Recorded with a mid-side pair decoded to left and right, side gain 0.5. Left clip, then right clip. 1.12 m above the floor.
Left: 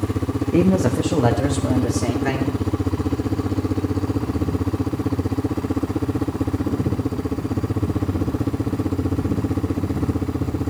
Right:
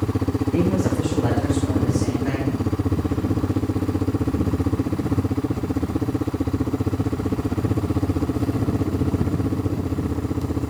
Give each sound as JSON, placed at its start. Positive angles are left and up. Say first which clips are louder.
{"t": 0.5, "sound": "a man speaking", "louder": "left 5 dB", "azimuth_deg": 35, "distance_m": 0.9}